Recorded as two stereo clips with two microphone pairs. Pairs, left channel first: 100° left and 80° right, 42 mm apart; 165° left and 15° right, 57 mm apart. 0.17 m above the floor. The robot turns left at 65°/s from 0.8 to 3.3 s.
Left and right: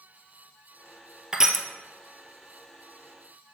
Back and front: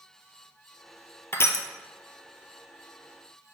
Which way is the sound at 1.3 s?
150° right.